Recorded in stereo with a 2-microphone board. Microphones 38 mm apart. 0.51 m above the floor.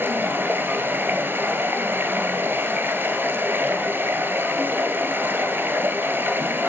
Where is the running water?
70° right (ahead or behind), 2 m.